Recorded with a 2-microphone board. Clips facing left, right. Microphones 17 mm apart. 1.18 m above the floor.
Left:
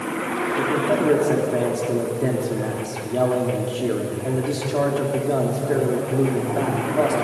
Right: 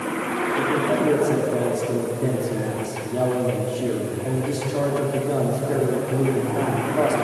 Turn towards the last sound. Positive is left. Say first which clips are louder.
# left 1 dB
turn(degrees=30)  # may be behind; listen again after turning